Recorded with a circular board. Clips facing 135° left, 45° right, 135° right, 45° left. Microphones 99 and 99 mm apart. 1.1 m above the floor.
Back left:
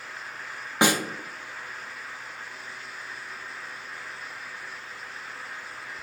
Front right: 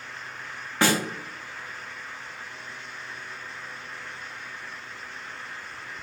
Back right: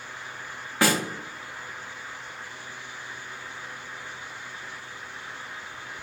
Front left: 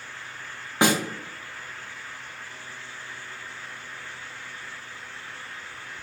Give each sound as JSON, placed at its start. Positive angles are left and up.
{"t": 0.8, "sound": "a snare drum", "azimuth_deg": 85, "distance_m": 0.6}